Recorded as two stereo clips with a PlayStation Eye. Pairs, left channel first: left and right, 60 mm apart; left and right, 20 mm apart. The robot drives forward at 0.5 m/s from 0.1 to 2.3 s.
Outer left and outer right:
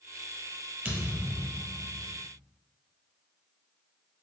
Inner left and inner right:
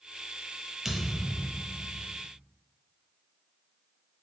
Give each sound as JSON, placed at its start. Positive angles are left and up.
{"t": 0.8, "sound": "a thud", "side_deg": -30, "distance_m": 1.7}